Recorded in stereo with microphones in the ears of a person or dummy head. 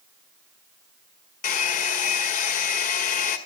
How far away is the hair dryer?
About 1.5 m.